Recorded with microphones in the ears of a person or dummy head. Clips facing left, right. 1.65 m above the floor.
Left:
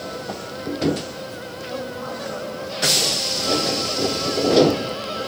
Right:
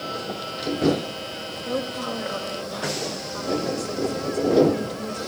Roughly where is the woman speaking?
Right.